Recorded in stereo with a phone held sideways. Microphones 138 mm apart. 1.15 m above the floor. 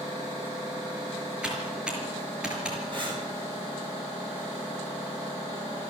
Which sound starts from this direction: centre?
Typing on a keyboard, at 1.4 s.